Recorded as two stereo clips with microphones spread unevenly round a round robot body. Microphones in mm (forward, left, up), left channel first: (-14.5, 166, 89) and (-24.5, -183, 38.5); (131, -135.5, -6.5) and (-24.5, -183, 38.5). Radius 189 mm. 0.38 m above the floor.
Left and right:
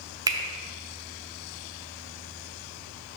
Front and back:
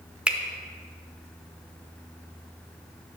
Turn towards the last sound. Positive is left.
turn(degrees=-50)